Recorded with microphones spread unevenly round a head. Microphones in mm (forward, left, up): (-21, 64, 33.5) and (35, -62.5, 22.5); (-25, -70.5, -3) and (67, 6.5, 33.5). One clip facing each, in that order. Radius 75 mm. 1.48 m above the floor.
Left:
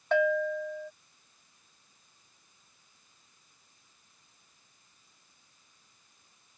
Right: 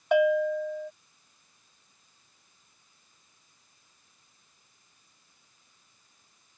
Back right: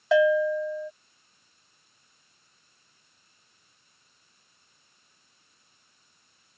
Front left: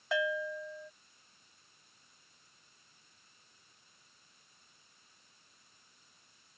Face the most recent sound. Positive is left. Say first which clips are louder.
# right 4 dB, back right 14 dB
turn(degrees=-145)